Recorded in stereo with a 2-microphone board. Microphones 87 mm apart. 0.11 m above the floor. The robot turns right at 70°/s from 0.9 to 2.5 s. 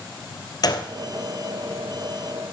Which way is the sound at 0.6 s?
50° left (ahead or behind).